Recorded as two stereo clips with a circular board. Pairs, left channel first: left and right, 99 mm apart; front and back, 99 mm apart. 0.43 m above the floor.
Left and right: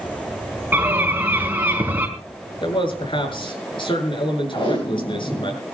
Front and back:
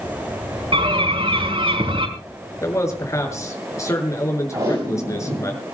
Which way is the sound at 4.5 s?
130° left.